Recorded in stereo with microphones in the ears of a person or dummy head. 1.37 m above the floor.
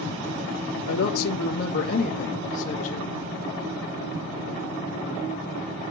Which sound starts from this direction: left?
A woman speaking, at 0.9 s.